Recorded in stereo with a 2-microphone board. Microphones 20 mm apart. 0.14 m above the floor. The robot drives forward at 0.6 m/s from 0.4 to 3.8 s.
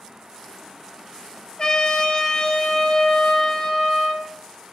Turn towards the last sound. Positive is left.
turn(degrees=20)  # may be behind; listen again after turning